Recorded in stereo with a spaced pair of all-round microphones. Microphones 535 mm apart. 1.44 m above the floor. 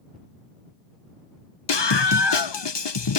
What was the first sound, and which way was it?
A scream, 50° left (ahead or behind).